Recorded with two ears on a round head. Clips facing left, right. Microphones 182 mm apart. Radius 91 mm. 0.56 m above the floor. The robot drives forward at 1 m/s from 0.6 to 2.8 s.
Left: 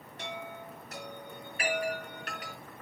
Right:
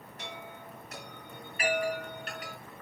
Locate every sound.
0.2 s a chime: 30° left (ahead or behind), 5 m; by 2.5 s 45° left (ahead or behind), 3.5 m